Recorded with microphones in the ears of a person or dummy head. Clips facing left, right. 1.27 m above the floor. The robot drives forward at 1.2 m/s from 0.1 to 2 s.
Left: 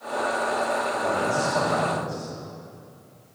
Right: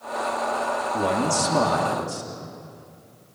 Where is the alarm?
No alarm in this recording.